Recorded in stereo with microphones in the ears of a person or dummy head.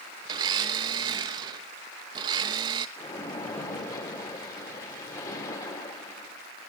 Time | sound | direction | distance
0.2 | a blender | 25° right (ahead or behind) | 0.9 m
3.0 | a splash | 20° left (ahead or behind) | 5 m